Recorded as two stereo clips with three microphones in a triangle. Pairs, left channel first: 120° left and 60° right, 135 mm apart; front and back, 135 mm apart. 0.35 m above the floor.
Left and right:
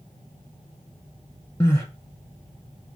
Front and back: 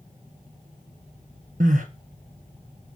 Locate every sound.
1.6 s crying: 170° right, 1.1 m